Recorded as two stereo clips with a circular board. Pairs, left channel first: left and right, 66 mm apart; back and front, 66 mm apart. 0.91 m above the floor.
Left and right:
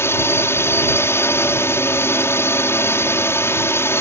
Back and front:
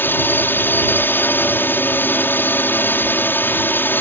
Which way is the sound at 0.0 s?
130° left.